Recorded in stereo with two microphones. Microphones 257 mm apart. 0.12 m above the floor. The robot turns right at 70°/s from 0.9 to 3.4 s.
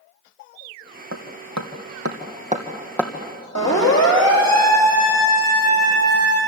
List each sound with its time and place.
1.1 s hammering: 55° right (ahead or behind), 2.5 m; by 3.1 s 15° left (ahead or behind), 2.5 m
3.5 s a siren: 75° left (ahead or behind), 7 m